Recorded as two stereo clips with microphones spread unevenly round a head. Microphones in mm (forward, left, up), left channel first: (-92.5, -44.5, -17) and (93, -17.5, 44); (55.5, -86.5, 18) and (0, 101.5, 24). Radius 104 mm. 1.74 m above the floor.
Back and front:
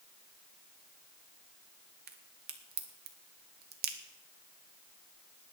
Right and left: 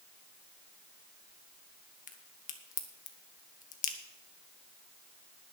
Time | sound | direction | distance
2.1 | a crack | 25° right | 1.6 m